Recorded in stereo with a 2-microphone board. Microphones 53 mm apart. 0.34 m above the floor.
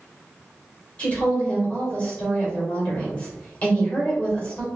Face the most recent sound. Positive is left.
turn(degrees=25)  # may be behind; listen again after turning